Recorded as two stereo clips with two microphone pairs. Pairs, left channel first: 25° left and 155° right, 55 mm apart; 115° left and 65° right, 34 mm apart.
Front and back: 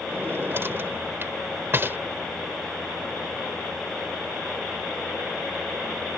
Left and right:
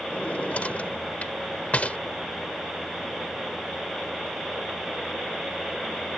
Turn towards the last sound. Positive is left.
turn(degrees=160)